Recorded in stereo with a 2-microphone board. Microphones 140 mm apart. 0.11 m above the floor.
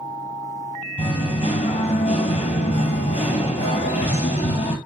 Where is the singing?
45° left (ahead or behind), 1.2 m.